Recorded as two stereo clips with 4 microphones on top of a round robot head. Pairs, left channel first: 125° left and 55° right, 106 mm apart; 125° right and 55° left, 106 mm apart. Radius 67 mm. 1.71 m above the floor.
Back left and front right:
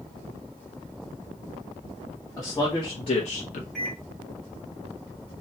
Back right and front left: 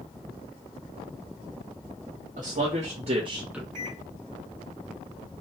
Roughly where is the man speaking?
Ahead left.